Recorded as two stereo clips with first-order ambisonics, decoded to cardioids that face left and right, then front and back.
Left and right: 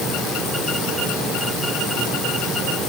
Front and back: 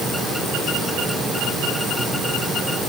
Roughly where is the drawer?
No drawer in this recording.